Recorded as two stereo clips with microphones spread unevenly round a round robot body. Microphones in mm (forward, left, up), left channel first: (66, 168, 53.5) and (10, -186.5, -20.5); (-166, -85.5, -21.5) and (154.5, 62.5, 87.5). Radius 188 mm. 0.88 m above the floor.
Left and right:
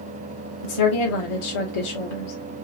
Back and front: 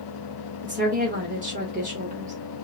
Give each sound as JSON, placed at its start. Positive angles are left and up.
{"t": 0.6, "sound": "a woman speaking", "azimuth_deg": 95, "distance_m": 2.5}